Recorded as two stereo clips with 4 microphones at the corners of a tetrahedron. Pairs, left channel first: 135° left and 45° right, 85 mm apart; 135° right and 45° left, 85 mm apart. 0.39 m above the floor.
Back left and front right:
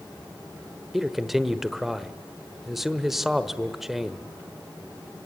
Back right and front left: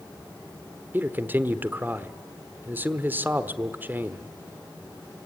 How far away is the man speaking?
About 1.1 m.